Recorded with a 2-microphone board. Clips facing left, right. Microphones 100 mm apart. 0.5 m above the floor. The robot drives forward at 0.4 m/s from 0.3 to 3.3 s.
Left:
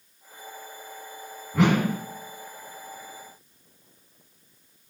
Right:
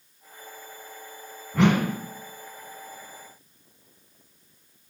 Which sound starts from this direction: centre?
A whoosh, at 1.5 s.